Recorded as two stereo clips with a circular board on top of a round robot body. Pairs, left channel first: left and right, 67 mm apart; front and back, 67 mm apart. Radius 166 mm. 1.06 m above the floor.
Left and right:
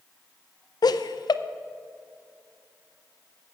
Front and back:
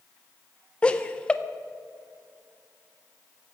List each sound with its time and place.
0.8 s laughter: 75° left, 0.7 m